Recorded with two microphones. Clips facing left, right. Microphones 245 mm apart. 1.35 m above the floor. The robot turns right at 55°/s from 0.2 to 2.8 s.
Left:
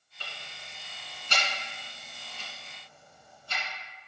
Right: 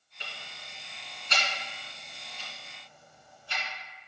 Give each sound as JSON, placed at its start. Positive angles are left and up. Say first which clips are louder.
{"t": 0.2, "sound": "ticking", "louder": "even", "side_deg": -20, "distance_m": 2.0}